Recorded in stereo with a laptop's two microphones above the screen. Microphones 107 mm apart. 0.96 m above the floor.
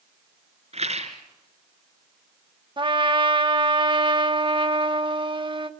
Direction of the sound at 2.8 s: 45° right (ahead or behind).